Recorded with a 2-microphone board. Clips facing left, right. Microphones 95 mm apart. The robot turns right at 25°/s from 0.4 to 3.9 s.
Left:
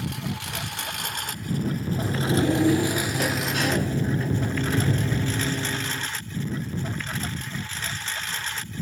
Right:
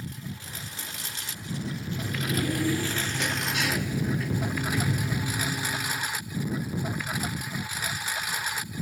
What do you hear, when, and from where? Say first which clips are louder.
0.0 s a lawn mower: left 8 dB; 105° left; by 8.8 s 170° right
1.9 s a sliding door: left 6 dB; 75° left; by 6.1 s 125° left